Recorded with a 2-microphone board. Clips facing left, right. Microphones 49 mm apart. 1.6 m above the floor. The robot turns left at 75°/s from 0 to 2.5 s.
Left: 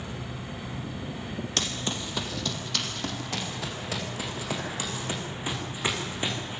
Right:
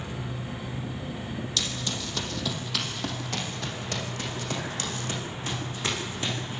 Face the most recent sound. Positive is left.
turn(degrees=20)  # may be behind; listen again after turning